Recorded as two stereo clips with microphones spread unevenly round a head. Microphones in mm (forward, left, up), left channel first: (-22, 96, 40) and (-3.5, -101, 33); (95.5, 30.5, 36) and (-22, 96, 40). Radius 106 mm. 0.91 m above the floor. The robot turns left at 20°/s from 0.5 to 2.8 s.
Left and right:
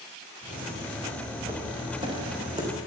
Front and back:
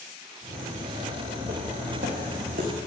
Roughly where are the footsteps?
Behind right.